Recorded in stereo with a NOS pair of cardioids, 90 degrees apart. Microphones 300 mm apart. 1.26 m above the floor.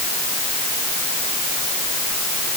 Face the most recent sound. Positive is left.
No sound to turn to.